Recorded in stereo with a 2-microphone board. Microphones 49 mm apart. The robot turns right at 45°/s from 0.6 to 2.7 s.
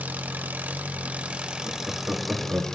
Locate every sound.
0.0 s an engine running: 75° right, 0.8 m; by 2.8 s 20° left, 0.8 m
1.6 s laughter: 5° left (ahead or behind), 1.5 m; by 2.6 s 40° right (ahead or behind), 1.5 m